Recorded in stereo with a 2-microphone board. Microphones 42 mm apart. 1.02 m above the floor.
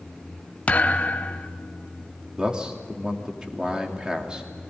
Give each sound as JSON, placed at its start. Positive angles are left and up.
{"t": 0.7, "sound": "a thud", "side_deg": 35, "distance_m": 1.0}
{"t": 2.4, "sound": "a man speaking", "side_deg": -20, "distance_m": 2.5}